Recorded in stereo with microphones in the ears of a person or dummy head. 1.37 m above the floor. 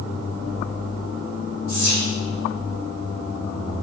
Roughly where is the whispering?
Left.